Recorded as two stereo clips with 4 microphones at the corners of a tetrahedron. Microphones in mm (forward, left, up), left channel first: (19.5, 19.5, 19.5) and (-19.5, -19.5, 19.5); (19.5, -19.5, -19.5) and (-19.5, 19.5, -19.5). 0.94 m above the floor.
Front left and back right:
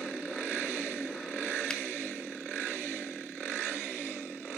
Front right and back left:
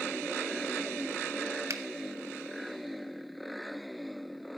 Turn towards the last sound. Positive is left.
turn(degrees=125)